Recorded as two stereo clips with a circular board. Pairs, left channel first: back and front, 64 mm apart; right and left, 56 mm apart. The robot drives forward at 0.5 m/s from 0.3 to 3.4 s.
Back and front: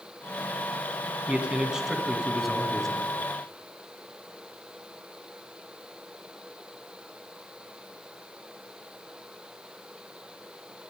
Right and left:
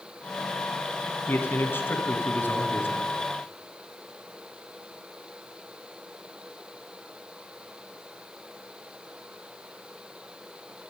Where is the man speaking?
65° right, 2 m; by 3.0 s 100° right, 2 m.